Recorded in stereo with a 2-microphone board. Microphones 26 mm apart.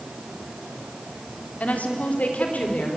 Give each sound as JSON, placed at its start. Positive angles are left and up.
{"t": 1.6, "sound": "a woman speaking", "side_deg": 85, "distance_m": 3.5}